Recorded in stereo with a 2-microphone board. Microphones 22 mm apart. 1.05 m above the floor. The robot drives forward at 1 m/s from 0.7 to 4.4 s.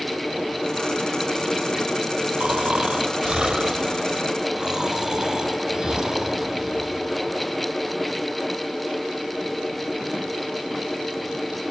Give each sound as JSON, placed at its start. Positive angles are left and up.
{"t": 2.4, "sound": "snoring", "side_deg": -65, "distance_m": 1.5}